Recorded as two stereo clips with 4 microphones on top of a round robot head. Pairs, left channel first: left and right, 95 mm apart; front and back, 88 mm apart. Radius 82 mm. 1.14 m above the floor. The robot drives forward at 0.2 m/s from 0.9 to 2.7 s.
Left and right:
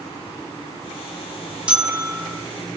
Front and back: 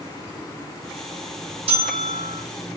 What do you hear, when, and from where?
1.7 s a bell: 170° right, 3 m